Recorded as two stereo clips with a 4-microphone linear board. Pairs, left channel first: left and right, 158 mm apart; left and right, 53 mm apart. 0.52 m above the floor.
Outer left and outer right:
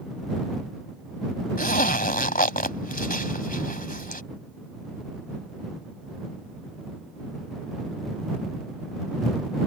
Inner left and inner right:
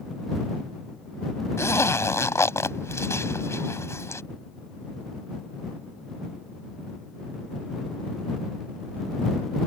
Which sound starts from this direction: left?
A zipper, at 1.6 s.